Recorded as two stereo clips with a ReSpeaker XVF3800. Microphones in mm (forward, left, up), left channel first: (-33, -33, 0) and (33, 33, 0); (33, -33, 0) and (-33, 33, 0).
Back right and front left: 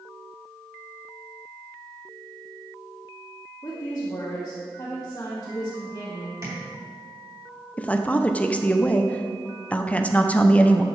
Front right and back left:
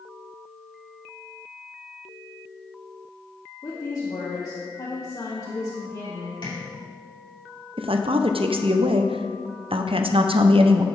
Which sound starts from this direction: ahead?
Tapping, at 6.4 s.